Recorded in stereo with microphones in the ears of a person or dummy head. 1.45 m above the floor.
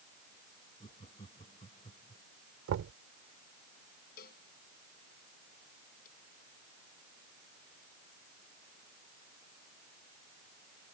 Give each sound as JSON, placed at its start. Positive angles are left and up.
{"t": 0.8, "sound": "laughter", "side_deg": 30}
{"t": 2.7, "sound": "knocking", "side_deg": -75}
{"t": 4.2, "sound": "a cowbell", "side_deg": 50}